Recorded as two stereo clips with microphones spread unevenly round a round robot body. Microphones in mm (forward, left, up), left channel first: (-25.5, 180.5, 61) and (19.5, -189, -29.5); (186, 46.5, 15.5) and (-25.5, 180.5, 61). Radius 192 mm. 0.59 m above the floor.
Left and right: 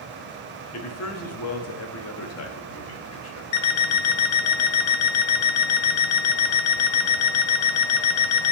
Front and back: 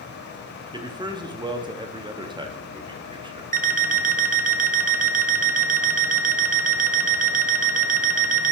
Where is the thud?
No thud in this recording.